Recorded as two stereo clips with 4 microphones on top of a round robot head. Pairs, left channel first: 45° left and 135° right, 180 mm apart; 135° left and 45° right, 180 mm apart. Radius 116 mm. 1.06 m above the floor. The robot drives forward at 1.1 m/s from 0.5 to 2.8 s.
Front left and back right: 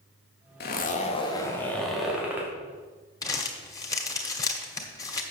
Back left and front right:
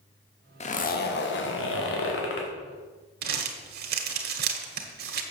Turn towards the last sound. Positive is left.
turn(degrees=-25)